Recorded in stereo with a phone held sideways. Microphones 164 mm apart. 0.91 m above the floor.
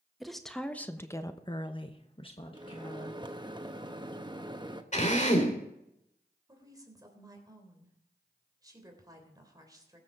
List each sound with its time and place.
0.2 s a woman speaking: centre (ahead or behind), 1.5 m; by 3.2 s 30° left (ahead or behind), 1.9 m
2.5 s a microwave: 25° right (ahead or behind), 1.0 m
4.9 s a drill: 45° left (ahead or behind), 3 m
6.5 s a woman speaking: 25° right (ahead or behind), 3.5 m